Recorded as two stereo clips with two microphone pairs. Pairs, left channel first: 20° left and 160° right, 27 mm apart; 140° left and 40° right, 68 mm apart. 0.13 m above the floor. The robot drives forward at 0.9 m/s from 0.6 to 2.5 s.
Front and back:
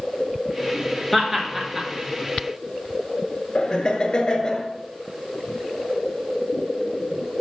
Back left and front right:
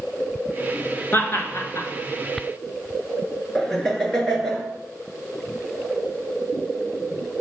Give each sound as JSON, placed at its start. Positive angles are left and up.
{"t": 1.1, "sound": "laughter", "azimuth_deg": 100, "distance_m": 1.5}
{"t": 3.5, "sound": "laughter", "azimuth_deg": 60, "distance_m": 1.4}